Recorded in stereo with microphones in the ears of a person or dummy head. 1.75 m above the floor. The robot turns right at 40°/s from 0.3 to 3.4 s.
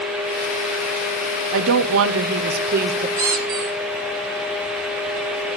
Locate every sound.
1.5 s a woman speaking: 100° right, 1.0 m; by 3.1 s 40° right, 1.0 m
3.2 s a squeak: 20° right (ahead or behind), 0.7 m; by 3.8 s 25° right (ahead or behind), 0.7 m